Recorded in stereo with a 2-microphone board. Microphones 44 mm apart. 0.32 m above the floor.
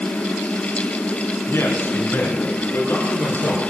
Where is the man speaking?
70° left (ahead or behind), 4.5 m; by 3.6 s 75° left (ahead or behind), 7 m.